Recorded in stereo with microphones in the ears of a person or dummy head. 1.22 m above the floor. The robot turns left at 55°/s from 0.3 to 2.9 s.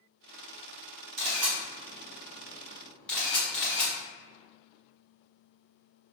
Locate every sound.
1.2 s a camera shutter: 55° right (ahead or behind), 1.3 m; by 3.9 s 5° left (ahead or behind), 1.3 m